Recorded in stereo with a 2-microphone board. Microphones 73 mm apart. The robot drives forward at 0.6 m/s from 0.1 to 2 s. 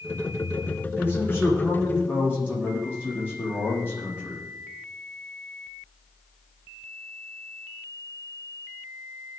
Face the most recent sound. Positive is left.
turn(degrees=25)  # may be behind; listen again after turning